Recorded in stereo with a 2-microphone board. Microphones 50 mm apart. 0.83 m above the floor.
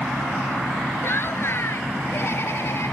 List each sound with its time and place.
1.0 s laughter: 50° left (ahead or behind); by 2.9 s 55° left (ahead or behind)